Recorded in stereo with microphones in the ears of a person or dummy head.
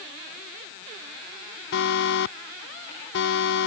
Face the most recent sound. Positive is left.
turn(degrees=70)  # may be behind; listen again after turning